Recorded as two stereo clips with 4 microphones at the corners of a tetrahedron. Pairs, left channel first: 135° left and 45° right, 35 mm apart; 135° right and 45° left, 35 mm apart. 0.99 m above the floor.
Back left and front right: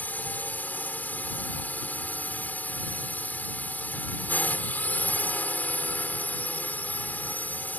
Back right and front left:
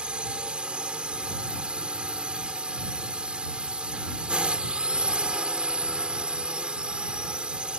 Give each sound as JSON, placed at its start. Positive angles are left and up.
{"t": 0.0, "sound": "a drone", "azimuth_deg": 100}